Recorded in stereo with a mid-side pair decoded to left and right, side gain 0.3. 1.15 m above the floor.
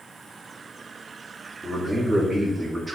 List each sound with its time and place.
1.6 s a man speaking: 5° right, 3.5 m; by 3.0 s 25° right, 3 m